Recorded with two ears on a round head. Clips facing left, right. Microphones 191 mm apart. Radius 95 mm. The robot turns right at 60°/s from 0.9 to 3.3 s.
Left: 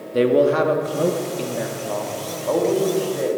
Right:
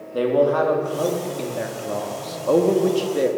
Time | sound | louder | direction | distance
0.1 | a man speaking | left 2 dB | 140° left | 0.7 m